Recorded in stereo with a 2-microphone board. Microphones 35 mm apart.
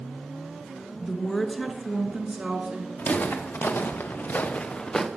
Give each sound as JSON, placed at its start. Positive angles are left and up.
{"t": 1.0, "sound": "a woman speaking", "side_deg": 25, "distance_m": 1.3}
{"t": 3.0, "sound": "footsteps", "side_deg": 70, "distance_m": 2.0}